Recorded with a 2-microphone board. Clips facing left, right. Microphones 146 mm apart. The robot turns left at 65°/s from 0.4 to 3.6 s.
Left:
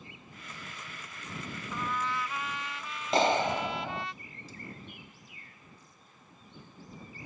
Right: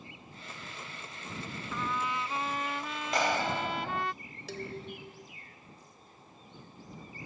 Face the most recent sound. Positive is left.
turn(degrees=-80)